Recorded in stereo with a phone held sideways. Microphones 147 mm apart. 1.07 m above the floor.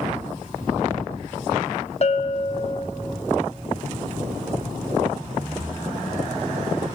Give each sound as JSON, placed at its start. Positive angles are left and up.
{"t": 2.0, "sound": "a bell", "side_deg": 45, "distance_m": 0.7}